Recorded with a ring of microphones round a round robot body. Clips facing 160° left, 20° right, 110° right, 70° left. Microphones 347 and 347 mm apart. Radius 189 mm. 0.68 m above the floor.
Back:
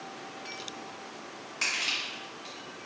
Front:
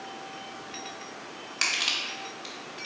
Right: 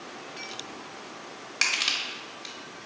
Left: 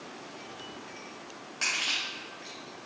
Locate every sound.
1.6 s crushing: 80° right, 0.5 m